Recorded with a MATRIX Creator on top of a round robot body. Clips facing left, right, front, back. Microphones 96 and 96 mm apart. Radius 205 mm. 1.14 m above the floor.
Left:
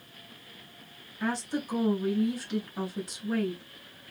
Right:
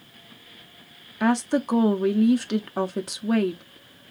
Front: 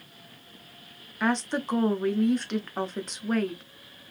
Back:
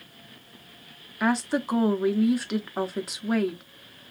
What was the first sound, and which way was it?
A woman speaking, 95° right.